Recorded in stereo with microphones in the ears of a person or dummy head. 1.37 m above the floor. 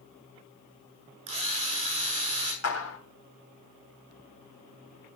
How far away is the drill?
About 7 m.